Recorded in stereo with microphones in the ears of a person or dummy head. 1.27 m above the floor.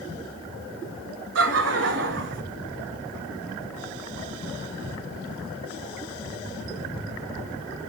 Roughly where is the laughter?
Right.